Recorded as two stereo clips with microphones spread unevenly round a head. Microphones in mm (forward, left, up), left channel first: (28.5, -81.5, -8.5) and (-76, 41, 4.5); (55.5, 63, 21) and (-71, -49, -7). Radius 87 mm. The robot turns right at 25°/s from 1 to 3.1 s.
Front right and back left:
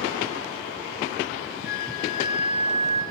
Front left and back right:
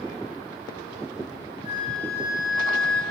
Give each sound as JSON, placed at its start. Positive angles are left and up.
{"t": 1.6, "sound": "a flute", "azimuth_deg": -10, "distance_m": 4.5}